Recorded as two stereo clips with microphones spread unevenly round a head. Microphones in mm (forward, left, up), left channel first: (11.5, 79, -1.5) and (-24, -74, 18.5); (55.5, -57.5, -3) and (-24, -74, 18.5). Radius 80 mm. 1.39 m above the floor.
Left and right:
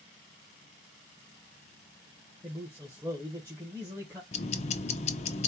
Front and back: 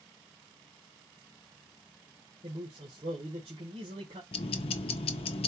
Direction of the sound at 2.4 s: 175° right.